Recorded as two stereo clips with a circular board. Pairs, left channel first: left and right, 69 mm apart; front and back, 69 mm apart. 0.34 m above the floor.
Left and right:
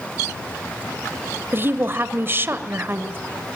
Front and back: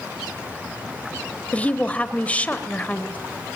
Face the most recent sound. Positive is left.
turn(degrees=-60)